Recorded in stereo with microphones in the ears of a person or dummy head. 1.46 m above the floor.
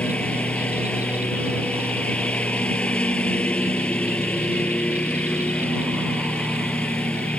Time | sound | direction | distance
0.0 | a lawn mower | 5° left (ahead or behind) | ?